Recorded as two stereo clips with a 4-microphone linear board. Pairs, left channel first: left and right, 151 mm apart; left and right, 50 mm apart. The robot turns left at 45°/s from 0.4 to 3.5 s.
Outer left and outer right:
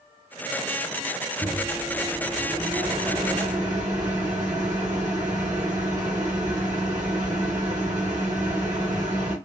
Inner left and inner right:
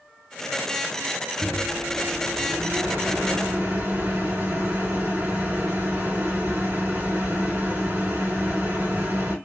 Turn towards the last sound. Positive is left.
turn(degrees=-95)